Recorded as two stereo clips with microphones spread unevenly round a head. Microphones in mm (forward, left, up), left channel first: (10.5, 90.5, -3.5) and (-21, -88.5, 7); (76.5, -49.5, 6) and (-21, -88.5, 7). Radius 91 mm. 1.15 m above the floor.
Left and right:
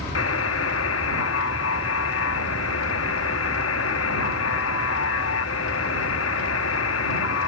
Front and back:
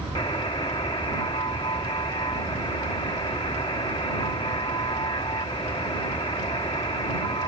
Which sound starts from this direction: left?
A buzzer, at 0.1 s.